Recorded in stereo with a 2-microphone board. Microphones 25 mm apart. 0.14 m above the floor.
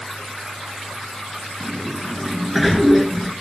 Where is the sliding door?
5° left (ahead or behind), 1.0 m.